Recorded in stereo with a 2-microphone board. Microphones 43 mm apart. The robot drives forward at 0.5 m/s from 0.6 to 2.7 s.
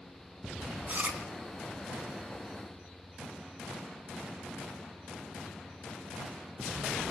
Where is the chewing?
40° right (ahead or behind), 2.5 m; by 1.2 s 35° right (ahead or behind), 3 m.